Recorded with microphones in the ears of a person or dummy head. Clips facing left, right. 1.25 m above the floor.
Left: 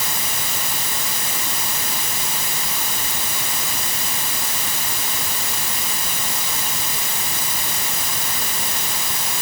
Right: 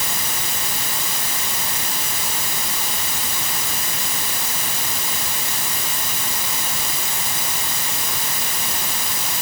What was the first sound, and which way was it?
Only background noise.